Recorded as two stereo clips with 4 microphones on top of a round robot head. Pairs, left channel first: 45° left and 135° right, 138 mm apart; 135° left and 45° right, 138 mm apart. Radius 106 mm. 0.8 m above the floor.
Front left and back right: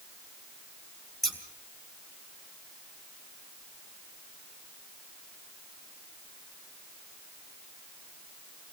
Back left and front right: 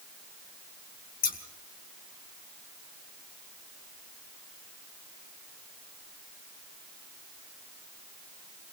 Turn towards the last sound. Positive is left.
turn(degrees=130)